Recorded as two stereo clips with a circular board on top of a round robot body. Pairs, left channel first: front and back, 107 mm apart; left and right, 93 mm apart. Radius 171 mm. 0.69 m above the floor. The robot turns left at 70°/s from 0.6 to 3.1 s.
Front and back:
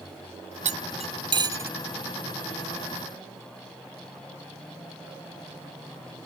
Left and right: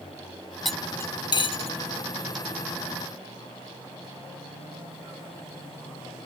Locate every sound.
0.7 s cutlery clinking: straight behind; by 1.7 s 110° left